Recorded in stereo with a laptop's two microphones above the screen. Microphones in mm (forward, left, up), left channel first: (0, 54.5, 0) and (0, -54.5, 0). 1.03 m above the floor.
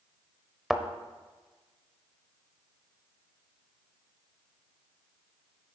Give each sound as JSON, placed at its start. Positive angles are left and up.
{"t": 0.7, "sound": "a thud", "side_deg": 0, "distance_m": 1.0}